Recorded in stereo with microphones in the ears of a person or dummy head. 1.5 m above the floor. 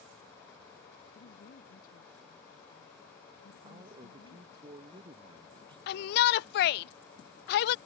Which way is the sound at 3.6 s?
30° right (ahead or behind).